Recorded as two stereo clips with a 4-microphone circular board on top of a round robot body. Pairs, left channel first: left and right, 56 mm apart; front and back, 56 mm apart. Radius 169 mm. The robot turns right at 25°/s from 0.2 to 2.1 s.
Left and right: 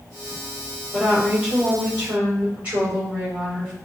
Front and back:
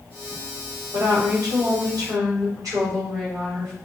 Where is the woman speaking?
175° left, 2.5 m; by 3.7 s 155° right, 2.5 m.